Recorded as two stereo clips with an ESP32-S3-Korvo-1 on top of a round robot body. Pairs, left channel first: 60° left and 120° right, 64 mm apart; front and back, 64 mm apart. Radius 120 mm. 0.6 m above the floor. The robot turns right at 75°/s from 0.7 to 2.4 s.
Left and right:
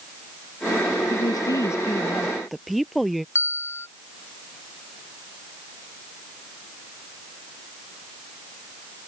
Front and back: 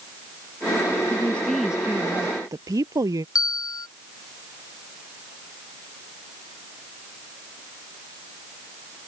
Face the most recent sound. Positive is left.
turn(degrees=10)